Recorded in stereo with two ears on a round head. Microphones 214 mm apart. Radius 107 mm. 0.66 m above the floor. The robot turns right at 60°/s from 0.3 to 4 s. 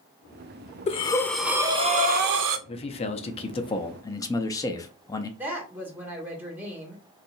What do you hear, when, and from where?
0.9 s breathing: 150° left, 0.5 m; by 2.6 s 110° right, 0.5 m
2.7 s a man speaking: 25° left (ahead or behind), 0.5 m; by 5.3 s 15° left (ahead or behind), 0.5 m
5.4 s a woman speaking: 10° right (ahead or behind), 1.5 m